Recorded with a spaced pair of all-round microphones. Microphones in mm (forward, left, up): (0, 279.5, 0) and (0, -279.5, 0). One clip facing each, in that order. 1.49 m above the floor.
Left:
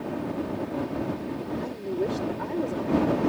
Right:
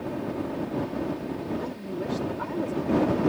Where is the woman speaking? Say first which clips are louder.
Left 4 dB; 30° right (ahead or behind).